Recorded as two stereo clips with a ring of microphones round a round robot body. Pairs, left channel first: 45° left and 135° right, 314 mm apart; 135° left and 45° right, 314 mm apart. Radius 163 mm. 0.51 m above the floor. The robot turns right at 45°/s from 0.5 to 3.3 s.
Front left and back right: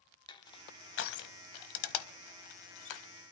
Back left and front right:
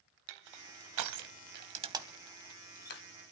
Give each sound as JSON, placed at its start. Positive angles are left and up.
{"t": 0.3, "sound": "crushing", "azimuth_deg": -30, "distance_m": 1.0}